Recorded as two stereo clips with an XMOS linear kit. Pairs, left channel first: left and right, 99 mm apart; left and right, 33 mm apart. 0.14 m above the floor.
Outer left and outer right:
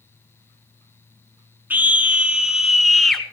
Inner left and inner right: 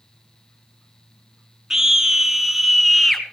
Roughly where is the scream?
Centre.